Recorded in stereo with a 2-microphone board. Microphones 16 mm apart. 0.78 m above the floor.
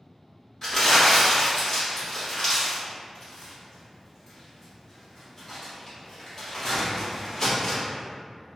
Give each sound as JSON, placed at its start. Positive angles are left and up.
{"t": 0.6, "sound": "crumpling", "side_deg": 25, "distance_m": 1.2}